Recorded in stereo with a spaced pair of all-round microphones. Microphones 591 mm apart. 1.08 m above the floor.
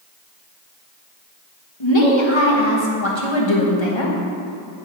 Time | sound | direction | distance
1.8 | a woman speaking | 50° left (ahead or behind) | 1.4 m